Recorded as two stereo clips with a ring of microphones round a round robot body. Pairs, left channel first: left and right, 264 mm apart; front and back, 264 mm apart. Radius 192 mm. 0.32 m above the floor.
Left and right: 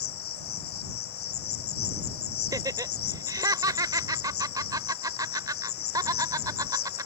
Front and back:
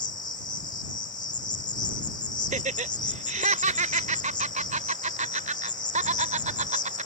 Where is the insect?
70° left.